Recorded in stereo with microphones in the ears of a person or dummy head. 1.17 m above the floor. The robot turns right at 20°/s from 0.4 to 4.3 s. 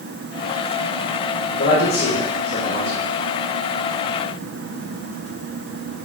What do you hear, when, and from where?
1.6 s a man speaking: 75° left (ahead or behind), 4 m